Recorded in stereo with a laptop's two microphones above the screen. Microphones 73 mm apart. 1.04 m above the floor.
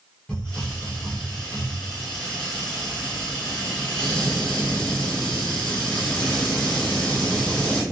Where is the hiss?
10° left (ahead or behind), 1.0 m.